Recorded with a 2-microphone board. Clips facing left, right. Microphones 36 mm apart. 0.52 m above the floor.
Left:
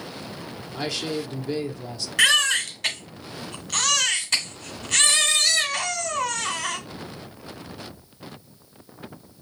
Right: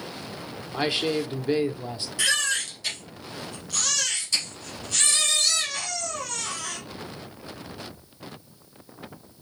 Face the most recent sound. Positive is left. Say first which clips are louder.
# left 6 dB
turn(degrees=85)